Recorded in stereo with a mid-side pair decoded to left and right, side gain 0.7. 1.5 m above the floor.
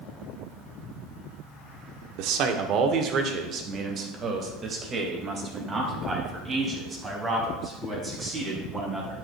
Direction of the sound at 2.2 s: 65° right.